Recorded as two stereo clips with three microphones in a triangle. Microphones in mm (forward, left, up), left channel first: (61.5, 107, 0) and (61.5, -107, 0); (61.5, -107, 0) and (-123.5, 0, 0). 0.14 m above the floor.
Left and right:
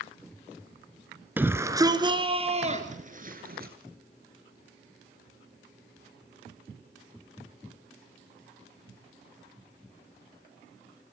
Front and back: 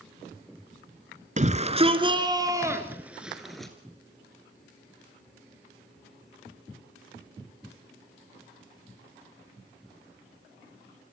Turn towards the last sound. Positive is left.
turn(degrees=-115)